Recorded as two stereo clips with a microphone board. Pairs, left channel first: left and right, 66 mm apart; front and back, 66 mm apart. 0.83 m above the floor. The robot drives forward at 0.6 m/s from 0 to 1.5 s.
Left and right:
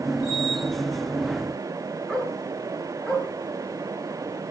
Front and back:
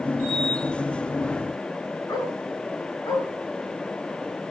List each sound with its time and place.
2.1 s a dog barking: 20° left, 5.5 m